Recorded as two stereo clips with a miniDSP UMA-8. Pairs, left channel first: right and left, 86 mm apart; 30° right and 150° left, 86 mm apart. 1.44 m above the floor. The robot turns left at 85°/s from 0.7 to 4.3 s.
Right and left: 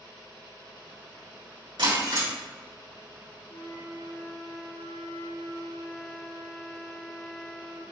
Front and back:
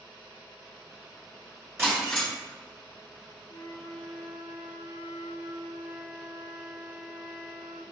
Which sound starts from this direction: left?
Breaking glass, at 1.8 s.